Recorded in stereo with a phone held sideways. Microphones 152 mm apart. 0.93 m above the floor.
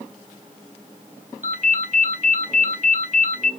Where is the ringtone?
60° right (ahead or behind), 1.0 m.